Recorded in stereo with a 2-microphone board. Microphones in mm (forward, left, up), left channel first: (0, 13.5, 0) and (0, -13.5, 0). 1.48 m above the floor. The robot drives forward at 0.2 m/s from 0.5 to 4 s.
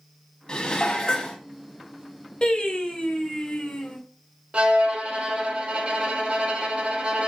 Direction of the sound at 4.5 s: 50° right (ahead or behind).